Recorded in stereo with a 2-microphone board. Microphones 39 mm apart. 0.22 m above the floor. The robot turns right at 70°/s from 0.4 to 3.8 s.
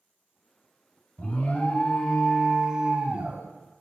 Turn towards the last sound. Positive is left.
turn(degrees=-70)